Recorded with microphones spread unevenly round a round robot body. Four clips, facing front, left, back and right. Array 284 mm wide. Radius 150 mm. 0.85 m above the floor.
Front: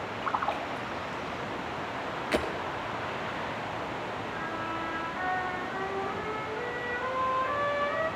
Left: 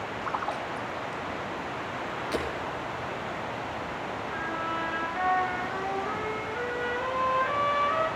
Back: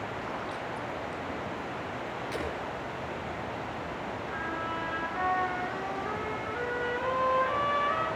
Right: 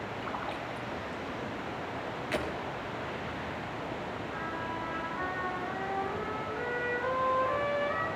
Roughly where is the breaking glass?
Ahead.